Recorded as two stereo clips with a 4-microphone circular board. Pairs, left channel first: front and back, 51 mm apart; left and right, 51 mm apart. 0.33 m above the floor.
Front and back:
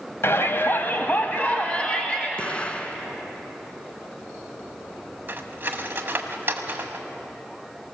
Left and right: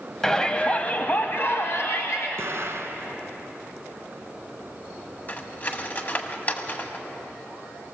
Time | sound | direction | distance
0.2 | a shout | 15° left | 1.5 m
2.4 | an explosion | 65° right | 1.1 m
5.3 | cutlery clinking | 135° left | 1.4 m